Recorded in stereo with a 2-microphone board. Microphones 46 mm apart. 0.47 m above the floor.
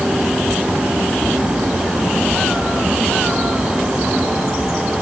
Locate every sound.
Only background noise.